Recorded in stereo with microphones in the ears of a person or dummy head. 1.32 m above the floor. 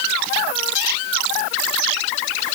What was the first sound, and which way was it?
Only background noise.